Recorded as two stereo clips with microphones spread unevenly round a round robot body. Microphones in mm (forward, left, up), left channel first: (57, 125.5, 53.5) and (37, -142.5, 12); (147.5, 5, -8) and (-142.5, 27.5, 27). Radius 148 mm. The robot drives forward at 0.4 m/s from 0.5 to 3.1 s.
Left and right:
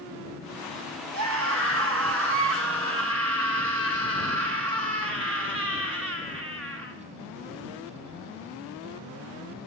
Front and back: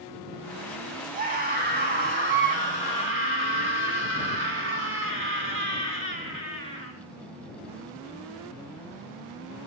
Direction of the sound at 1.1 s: 120° right.